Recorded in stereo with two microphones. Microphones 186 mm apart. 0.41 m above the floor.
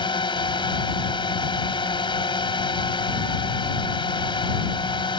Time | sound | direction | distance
0.0 | a drone | 30° left (ahead or behind) | ?